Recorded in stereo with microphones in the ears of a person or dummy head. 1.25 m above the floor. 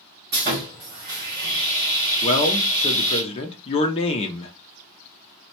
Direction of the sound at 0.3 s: 45° right (ahead or behind).